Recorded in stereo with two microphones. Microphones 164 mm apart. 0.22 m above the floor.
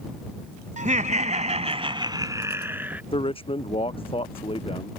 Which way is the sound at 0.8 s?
50° right (ahead or behind).